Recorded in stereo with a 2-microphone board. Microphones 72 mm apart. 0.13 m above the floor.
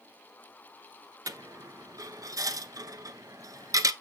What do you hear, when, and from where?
1.3 s a dropped coin: 55° right (ahead or behind), 0.6 m